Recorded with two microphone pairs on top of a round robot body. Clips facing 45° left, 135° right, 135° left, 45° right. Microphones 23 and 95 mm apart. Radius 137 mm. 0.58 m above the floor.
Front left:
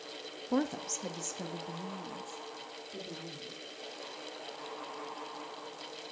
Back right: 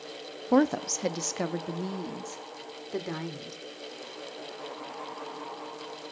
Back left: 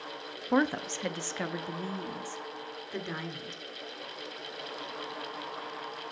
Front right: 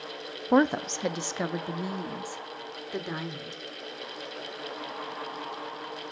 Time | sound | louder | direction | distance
0.5 | a woman speaking | back right 9 dB, front right 5 dB | 100° right | 0.8 m